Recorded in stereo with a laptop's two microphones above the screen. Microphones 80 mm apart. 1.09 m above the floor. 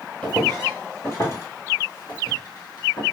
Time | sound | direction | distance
0.2 | footsteps | 20° left (ahead or behind) | 1.4 m